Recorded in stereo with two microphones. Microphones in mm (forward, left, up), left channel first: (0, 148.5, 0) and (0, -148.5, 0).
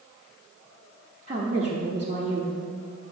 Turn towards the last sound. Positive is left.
turn(degrees=-20)  # may be behind; listen again after turning